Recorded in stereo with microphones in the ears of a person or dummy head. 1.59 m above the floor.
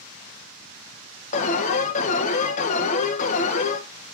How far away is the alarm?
About 1.8 m.